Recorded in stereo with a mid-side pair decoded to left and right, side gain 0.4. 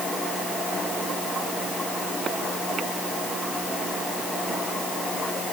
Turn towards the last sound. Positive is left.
No sound to turn to.